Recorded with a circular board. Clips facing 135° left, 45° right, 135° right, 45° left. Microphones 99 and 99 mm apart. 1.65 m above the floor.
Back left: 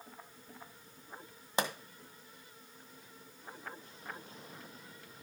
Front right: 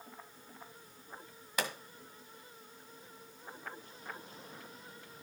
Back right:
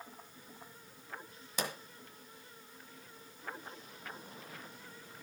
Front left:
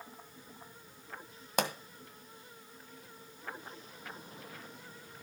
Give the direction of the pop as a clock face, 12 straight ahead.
10 o'clock.